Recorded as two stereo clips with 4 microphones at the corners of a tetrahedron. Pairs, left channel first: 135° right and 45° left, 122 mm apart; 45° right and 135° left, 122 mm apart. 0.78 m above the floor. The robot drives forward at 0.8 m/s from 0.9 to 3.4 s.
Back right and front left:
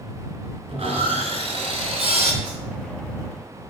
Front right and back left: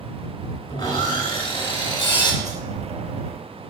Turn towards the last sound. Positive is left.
turn(degrees=155)